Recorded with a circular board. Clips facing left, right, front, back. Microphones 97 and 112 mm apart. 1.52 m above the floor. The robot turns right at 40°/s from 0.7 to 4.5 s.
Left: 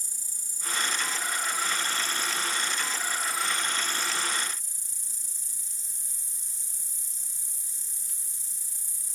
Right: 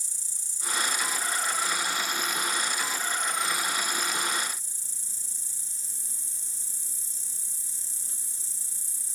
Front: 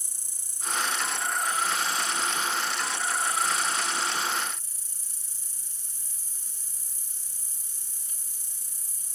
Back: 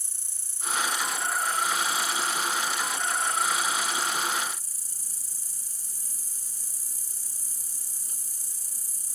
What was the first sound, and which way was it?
An insect, 70° left.